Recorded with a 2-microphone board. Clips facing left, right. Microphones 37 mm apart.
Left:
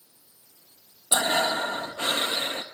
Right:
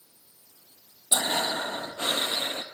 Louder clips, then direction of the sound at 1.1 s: Left 3 dB; 40° left (ahead or behind).